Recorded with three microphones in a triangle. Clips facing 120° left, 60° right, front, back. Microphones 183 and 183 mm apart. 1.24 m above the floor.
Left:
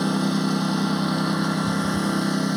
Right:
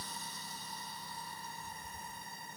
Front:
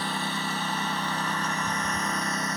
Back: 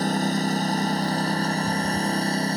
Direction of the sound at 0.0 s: 130° left.